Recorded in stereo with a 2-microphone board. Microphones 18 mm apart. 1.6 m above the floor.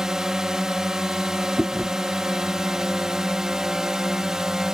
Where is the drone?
35° right (ahead or behind).